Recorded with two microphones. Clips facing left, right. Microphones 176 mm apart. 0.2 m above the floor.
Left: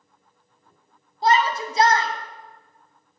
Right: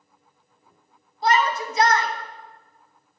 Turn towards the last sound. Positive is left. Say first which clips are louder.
# left 1 dB
turn(degrees=30)  # may be behind; listen again after turning